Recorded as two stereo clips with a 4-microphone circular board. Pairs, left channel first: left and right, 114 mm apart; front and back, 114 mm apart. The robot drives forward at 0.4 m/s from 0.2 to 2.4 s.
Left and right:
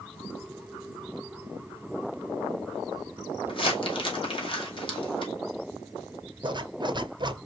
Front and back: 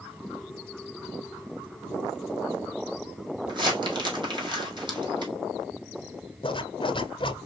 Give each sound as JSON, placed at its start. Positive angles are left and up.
{"t": 3.5, "sound": "crumpling", "azimuth_deg": 130, "distance_m": 2.0}
{"t": 6.4, "sound": "a zipper", "azimuth_deg": -40, "distance_m": 0.6}